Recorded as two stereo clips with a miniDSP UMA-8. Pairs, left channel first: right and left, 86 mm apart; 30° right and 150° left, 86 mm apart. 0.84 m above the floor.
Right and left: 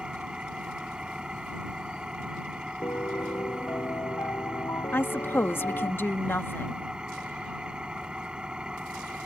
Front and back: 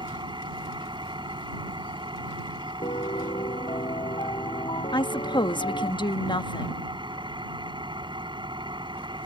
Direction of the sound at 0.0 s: 170° left.